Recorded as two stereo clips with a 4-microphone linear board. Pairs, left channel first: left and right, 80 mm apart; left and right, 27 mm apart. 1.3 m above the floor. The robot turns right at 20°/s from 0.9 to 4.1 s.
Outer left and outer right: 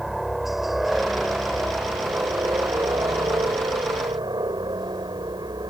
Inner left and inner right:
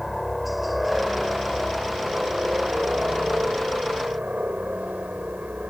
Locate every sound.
0.0 s a helicopter: 5° right (ahead or behind); by 5.7 s 60° right (ahead or behind)